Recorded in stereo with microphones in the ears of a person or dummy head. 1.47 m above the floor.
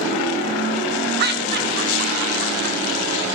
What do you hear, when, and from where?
1.2 s laughter: 60° right (ahead or behind), 1.8 m